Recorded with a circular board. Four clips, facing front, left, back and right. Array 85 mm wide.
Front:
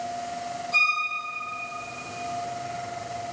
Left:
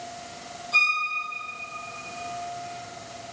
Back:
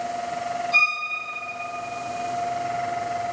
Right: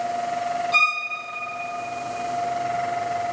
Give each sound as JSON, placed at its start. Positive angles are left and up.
{"t": 0.7, "sound": "a violin", "azimuth_deg": -95, "distance_m": 3.5}